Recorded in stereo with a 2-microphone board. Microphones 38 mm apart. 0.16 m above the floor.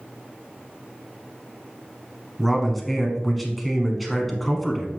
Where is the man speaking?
5° left (ahead or behind), 1.2 m.